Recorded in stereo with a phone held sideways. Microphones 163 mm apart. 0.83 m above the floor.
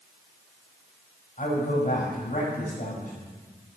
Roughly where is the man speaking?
Left.